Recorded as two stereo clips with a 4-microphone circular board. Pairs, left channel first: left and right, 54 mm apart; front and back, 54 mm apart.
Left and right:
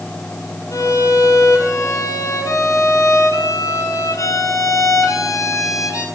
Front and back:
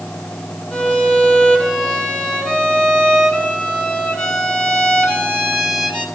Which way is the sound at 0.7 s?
80° left.